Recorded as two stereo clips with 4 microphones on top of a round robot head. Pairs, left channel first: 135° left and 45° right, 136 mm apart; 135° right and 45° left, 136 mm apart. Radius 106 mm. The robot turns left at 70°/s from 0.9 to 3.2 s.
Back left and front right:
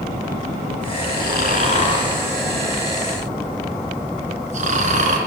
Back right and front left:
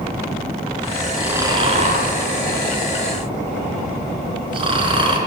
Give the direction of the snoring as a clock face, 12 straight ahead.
8 o'clock.